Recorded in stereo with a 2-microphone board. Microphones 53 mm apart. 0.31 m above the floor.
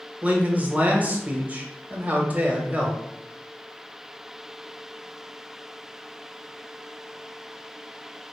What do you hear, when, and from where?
0.2 s a man speaking: 30° right (ahead or behind), 1.0 m